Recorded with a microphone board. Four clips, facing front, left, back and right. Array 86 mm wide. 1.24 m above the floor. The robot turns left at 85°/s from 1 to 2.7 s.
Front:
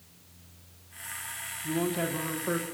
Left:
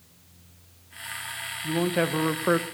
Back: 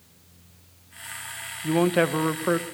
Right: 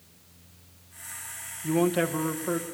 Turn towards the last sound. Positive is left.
turn(degrees=105)